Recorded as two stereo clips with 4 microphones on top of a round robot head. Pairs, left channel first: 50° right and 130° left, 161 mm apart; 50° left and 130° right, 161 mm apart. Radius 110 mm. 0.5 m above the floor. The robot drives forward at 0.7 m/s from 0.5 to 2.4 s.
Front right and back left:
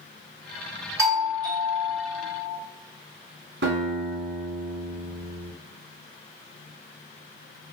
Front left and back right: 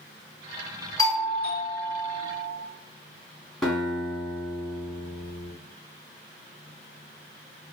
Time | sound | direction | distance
1.0 | a doorbell | 85° left | 1.8 m
3.6 | a guitar | 140° left | 1.7 m